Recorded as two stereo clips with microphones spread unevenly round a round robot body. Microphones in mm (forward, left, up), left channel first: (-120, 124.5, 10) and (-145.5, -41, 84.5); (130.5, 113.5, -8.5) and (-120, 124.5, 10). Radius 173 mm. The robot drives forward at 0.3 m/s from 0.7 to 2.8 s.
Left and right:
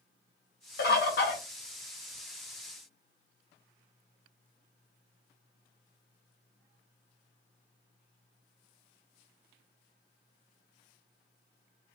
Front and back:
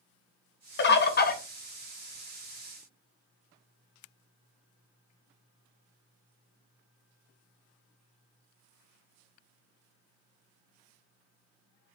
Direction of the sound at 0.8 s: 45° left.